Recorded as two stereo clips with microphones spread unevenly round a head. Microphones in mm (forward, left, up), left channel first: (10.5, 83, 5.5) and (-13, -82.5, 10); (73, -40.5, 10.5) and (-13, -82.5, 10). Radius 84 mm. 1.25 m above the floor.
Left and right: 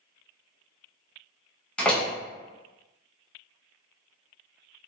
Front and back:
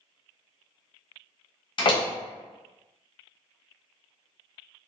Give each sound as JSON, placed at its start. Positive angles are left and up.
{"t": 1.8, "sound": "a door slam", "azimuth_deg": -5, "distance_m": 0.6}